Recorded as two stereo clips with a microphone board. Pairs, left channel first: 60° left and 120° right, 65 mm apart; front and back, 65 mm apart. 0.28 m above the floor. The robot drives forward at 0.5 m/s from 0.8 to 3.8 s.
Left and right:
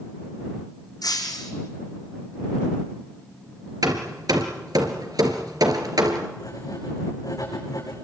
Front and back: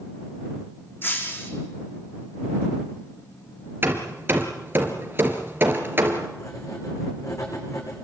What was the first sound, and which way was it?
Breaking glass, 55° left.